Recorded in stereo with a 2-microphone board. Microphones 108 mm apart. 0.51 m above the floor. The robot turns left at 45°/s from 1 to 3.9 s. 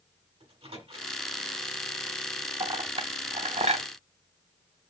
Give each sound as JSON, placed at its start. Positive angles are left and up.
{"t": 0.4, "sound": "a microwave", "side_deg": -70, "distance_m": 3.0}
{"t": 2.6, "sound": "a clink", "side_deg": -40, "distance_m": 0.7}